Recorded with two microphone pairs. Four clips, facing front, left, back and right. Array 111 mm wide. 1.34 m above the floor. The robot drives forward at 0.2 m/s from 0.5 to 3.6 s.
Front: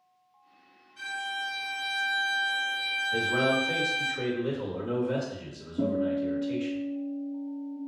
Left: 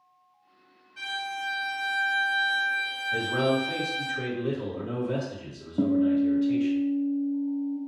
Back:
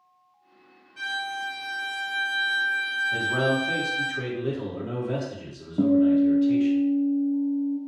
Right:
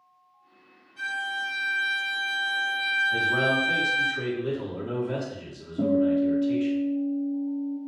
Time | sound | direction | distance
1.0 | a violin | 140° left | 1.5 m
3.1 | a man speaking | 165° right | 1.1 m
5.8 | a guitar | 135° left | 0.9 m